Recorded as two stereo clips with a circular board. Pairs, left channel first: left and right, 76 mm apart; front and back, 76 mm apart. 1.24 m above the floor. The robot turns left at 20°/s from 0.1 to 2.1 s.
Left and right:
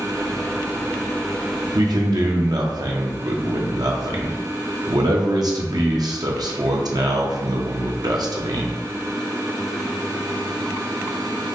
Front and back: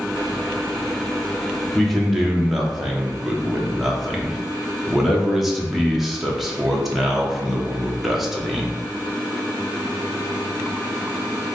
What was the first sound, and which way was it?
A man speaking, 85° right.